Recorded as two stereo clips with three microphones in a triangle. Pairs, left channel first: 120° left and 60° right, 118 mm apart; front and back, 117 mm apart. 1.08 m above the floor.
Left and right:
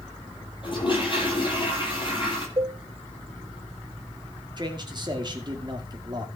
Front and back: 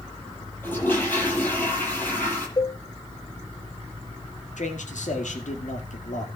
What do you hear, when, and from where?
0.6 s a toilet flushing: 75° left, 9 m
2.6 s a cowbell: 35° right, 0.6 m
4.6 s a man speaking: 5° right, 2.5 m